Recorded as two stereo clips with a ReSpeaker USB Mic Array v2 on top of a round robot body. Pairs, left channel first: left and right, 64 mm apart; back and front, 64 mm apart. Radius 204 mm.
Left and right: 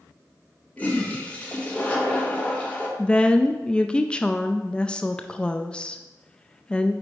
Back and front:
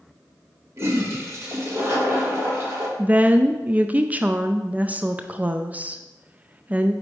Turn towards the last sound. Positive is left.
turn(degrees=35)